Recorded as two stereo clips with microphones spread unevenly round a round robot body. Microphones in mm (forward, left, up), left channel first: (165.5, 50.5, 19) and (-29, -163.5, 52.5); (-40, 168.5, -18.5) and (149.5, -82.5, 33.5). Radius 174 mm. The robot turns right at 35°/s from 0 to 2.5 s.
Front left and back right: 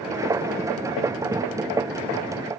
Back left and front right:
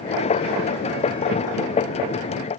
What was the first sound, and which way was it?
Only background noise.